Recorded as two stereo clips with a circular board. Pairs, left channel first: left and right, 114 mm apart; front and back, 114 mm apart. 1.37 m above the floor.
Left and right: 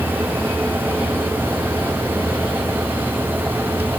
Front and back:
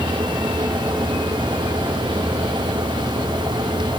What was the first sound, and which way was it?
Only background noise.